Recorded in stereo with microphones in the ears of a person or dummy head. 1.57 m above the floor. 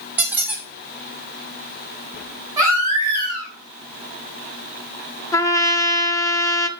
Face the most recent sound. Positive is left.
turn(degrees=15)  # may be behind; listen again after turning